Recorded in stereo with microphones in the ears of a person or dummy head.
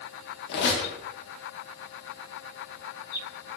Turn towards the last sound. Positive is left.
turn(degrees=65)  # may be behind; listen again after turning